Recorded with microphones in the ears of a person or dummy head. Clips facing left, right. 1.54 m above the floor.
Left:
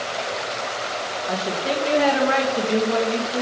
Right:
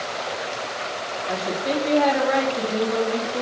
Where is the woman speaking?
40° left (ahead or behind), 1.7 m.